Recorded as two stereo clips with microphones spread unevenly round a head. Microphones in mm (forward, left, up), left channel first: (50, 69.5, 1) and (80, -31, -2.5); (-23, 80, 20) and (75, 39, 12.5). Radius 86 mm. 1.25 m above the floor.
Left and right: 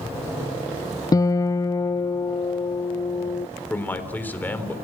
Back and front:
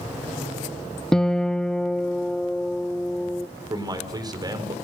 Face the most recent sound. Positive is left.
turn(degrees=30)